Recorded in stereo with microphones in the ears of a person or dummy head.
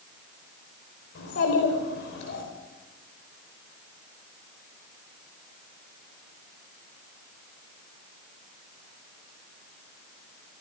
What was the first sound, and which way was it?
A child speaking, 80° left.